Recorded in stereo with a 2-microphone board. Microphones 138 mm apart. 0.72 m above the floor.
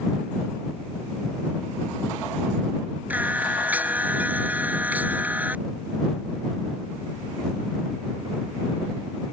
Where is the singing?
10° right (ahead or behind).